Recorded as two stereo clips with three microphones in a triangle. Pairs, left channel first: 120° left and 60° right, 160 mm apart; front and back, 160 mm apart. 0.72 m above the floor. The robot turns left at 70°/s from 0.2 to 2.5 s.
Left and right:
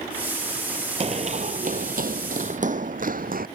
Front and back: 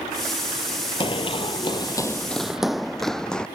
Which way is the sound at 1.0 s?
40° right.